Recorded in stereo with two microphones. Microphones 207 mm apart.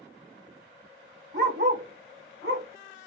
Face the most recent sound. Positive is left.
turn(degrees=-70)  # may be behind; listen again after turning